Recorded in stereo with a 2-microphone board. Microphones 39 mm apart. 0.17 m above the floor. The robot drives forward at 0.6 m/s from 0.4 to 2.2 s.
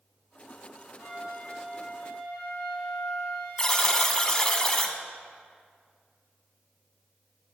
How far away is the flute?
About 3 m.